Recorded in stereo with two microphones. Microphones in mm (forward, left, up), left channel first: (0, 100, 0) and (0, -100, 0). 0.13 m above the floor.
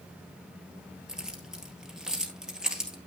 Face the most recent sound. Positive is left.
turn(degrees=-5)  # may be behind; listen again after turning